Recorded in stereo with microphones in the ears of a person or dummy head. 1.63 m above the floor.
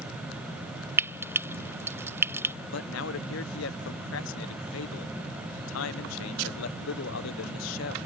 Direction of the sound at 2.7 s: 75° left (ahead or behind).